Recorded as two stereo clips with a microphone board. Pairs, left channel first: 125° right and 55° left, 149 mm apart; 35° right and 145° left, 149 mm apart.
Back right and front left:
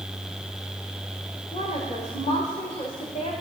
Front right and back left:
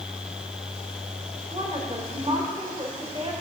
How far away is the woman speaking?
About 1.7 m.